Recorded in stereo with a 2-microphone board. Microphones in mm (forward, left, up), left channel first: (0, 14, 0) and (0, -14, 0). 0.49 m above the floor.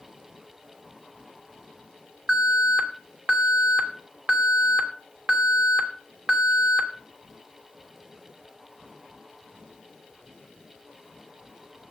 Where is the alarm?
50° right (ahead or behind), 2.5 m.